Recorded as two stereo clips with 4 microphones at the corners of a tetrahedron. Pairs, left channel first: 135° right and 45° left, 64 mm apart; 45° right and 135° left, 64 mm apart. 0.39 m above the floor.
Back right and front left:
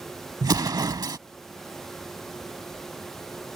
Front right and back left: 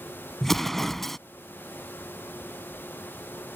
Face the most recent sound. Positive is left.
turn(degrees=40)